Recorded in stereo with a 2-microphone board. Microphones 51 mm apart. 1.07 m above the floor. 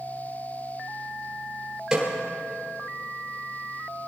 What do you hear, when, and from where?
1.9 s a snare drum: 15° right (ahead or behind), 4 m